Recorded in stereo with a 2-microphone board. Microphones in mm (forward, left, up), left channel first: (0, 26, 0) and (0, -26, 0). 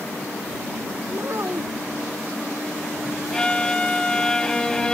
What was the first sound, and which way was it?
A child speaking, 55° right (ahead or behind).